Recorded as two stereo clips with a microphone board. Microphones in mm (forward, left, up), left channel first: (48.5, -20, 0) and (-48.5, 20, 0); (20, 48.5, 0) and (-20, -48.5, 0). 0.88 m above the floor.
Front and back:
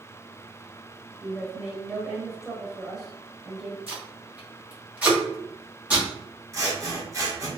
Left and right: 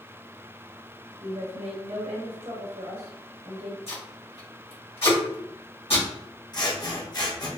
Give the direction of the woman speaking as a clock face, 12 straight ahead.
4 o'clock.